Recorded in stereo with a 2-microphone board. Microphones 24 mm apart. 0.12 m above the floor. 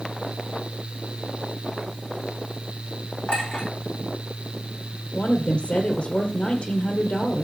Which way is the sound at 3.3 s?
55° left (ahead or behind).